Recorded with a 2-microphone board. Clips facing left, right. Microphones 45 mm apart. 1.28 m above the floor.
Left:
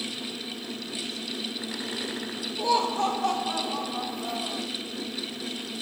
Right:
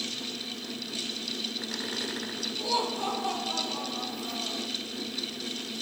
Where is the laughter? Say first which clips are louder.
Left 6 dB; 75° left (ahead or behind), 4.5 m.